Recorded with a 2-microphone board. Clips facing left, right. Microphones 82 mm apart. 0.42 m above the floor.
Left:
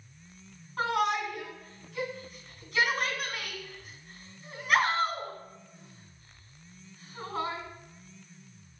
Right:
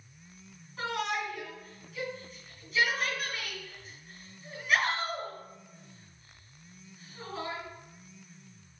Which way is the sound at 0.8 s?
55° left (ahead or behind).